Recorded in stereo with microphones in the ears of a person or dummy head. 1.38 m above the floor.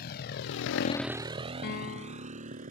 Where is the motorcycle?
55° left (ahead or behind); by 2.7 s 40° right (ahead or behind).